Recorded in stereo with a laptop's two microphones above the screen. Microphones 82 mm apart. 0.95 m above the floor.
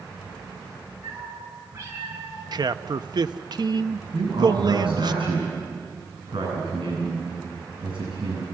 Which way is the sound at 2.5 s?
55° right (ahead or behind).